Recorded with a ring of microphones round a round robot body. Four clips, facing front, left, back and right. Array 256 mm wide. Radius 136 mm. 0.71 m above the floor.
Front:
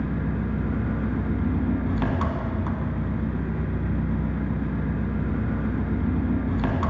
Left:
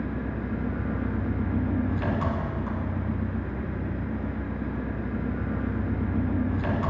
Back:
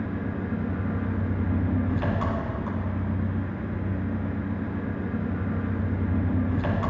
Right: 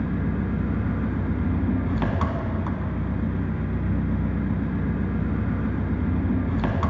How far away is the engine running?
About 1.6 m.